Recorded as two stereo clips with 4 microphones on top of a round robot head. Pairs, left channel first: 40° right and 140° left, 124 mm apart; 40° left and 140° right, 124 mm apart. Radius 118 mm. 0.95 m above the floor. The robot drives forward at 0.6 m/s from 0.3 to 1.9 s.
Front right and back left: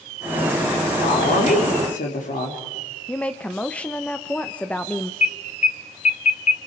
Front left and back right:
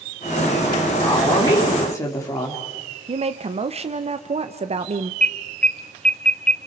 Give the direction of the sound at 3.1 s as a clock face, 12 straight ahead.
4 o'clock.